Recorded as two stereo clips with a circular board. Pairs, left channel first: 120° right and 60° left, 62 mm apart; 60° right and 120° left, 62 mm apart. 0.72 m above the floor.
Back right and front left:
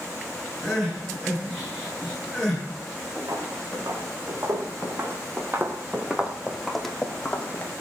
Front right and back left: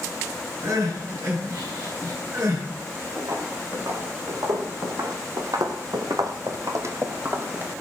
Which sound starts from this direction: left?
Footsteps, at 3.2 s.